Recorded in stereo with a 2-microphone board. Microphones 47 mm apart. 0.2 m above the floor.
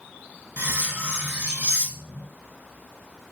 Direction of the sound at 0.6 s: 40° right (ahead or behind).